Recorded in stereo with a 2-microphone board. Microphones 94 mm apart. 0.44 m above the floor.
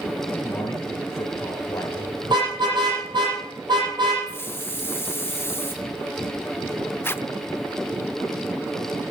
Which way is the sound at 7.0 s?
25° left (ahead or behind).